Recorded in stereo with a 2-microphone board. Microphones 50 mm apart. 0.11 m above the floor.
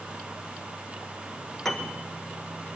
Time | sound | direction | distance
1.6 | a piano | 5° left (ahead or behind) | 1.5 m